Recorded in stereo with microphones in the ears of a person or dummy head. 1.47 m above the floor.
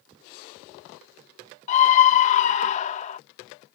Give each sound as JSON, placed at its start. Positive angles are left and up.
{"t": 1.7, "sound": "a scream", "side_deg": 40}